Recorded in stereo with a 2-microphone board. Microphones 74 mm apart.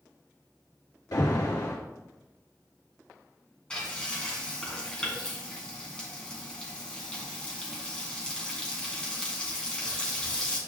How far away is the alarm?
About 2 m.